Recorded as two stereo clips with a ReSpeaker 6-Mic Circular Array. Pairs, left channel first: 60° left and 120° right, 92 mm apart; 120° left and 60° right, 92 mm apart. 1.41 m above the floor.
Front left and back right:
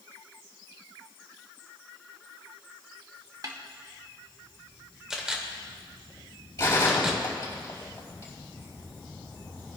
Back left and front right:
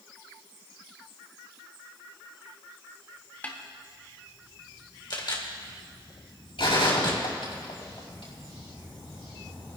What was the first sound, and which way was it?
A snare drum, 170° right.